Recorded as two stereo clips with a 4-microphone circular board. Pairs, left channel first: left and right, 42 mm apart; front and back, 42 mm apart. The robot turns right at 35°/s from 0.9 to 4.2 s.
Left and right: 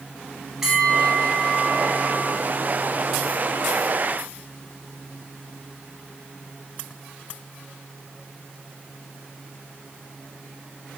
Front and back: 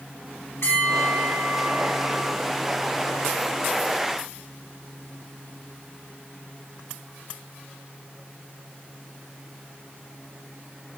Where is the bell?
10° right, 2.5 m; by 2.4 s 40° left, 2.5 m.